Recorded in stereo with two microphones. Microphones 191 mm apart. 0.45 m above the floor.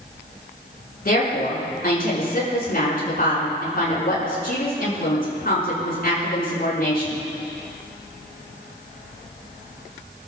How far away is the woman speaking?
About 6.5 m.